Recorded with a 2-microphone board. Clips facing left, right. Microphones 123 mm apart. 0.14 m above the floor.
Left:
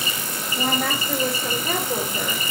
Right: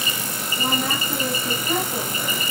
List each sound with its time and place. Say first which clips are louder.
0.6 s a woman speaking: left 1 dB; 80° left, 8.5 m